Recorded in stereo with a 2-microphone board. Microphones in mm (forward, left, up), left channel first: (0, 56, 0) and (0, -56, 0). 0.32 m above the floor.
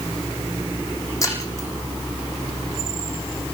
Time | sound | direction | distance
1.2 | breaking glass | 30° left (ahead or behind) | 7.5 m